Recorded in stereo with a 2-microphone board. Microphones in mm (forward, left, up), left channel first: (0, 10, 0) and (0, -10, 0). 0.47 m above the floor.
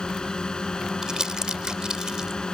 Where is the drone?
45° left (ahead or behind).